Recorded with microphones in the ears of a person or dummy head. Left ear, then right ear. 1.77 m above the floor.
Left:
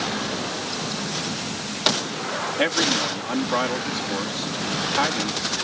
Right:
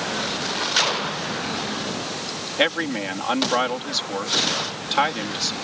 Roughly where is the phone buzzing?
No phone buzzing in this recording.